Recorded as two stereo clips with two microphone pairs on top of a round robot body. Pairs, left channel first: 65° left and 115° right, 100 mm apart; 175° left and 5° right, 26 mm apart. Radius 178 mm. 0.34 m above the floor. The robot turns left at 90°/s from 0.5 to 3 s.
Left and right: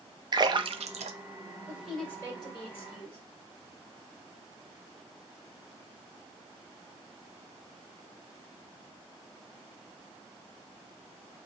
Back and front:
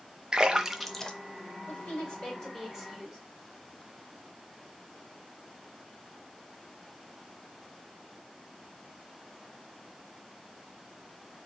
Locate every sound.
0.3 s a splash: 65° right, 0.6 m; by 1.1 s 120° right, 0.6 m
1.7 s a woman speaking: 175° left, 2.5 m; by 3.2 s 55° left, 2.5 m